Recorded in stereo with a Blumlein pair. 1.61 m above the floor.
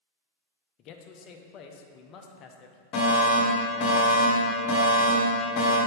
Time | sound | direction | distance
0.8 | a man speaking | 35° left | 0.8 m
2.9 | a fire alarm | 35° left | 1.9 m